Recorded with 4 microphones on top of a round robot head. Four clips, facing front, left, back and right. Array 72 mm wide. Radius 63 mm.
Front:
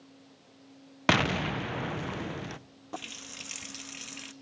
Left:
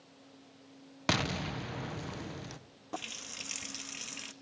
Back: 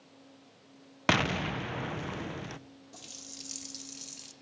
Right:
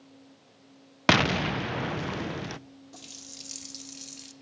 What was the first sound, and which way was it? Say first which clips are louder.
An explosion: right 10 dB, front 2 dB; 80° right.